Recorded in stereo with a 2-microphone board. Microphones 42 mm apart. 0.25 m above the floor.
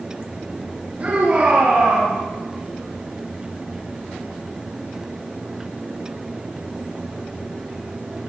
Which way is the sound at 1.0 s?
40° right (ahead or behind).